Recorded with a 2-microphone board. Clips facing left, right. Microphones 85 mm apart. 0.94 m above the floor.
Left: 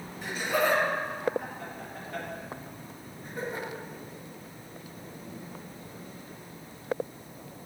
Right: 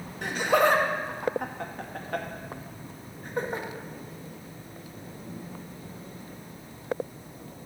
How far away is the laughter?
About 1.5 m.